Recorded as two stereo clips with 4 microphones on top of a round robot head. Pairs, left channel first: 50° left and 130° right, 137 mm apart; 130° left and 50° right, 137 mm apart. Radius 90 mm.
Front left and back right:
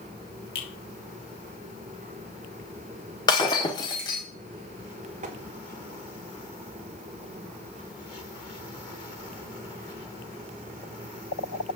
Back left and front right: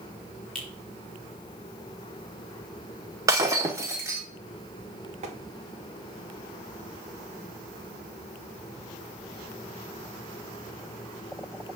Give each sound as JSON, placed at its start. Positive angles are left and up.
{"t": 0.6, "sound": "a finger snap", "azimuth_deg": 45, "distance_m": 3.0}
{"t": 3.3, "sound": "breaking glass", "azimuth_deg": 5, "distance_m": 1.0}
{"t": 5.2, "sound": "tapping", "azimuth_deg": -90, "distance_m": 1.3}